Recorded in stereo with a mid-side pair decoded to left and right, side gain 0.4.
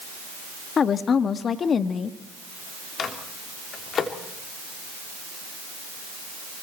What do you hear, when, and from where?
0.8 s a woman speaking: 55° left, 1.4 m
3.0 s a microwave: 55° left, 3 m